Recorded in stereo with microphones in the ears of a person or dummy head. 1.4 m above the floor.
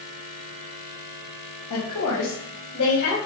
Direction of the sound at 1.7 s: 80° left.